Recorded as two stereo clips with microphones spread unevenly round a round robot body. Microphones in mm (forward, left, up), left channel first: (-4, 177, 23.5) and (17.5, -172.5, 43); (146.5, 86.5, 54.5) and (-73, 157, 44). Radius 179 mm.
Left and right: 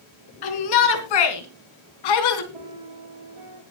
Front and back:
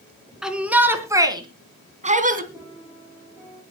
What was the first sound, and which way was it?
A shout, 75° left.